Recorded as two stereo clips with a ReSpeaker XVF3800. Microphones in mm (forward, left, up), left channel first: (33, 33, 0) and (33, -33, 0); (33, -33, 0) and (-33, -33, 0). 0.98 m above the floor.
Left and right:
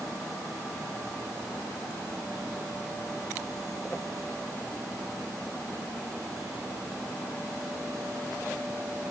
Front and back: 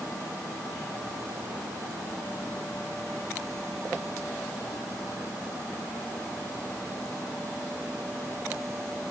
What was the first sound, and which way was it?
Only background noise.